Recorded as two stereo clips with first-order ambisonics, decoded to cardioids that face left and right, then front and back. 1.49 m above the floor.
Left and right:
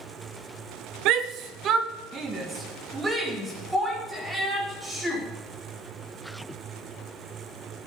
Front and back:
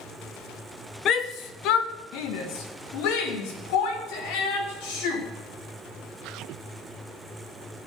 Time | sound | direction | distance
1.1 | a shout | 55° right | 1.1 m